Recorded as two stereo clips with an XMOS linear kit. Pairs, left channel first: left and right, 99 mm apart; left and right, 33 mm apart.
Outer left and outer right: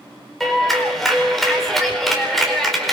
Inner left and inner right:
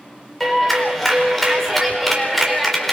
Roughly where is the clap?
Centre.